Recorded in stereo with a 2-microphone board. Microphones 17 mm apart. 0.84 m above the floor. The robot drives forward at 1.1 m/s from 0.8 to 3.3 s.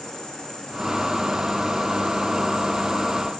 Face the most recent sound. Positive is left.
turn(degrees=70)  # may be behind; listen again after turning